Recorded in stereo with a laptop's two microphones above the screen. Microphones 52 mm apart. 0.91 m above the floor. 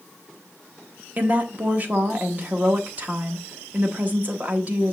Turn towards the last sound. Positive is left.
turn(degrees=-35)  # may be behind; listen again after turning